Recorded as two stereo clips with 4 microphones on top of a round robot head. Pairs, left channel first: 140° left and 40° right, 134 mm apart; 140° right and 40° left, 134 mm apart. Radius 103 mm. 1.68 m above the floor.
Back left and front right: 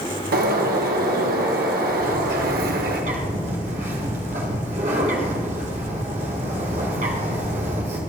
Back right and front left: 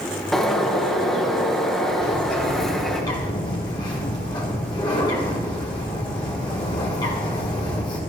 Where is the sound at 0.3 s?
50° right, 1.6 m.